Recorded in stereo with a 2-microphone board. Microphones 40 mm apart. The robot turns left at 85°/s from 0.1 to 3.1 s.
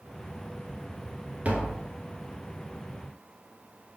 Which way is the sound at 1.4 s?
115° right.